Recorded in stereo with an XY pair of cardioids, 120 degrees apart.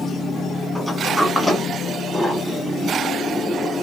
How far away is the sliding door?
About 2 m.